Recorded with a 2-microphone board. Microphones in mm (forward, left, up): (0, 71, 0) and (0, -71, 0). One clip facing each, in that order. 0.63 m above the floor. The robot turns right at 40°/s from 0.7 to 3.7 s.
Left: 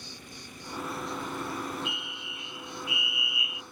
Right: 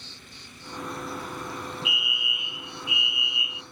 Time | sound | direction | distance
0.0 | an insect | 170° left | ?
1.9 | a fire alarm | 5° right (ahead or behind) | ?